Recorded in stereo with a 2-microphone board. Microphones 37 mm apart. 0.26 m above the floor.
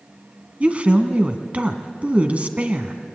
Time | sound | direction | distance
0.6 | a woman speaking | 35° right (ahead or behind) | 1.8 m